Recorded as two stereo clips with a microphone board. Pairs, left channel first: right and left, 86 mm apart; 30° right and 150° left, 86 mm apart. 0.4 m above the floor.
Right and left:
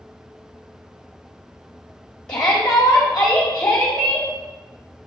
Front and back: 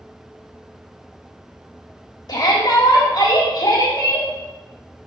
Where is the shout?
20° right, 1.6 m.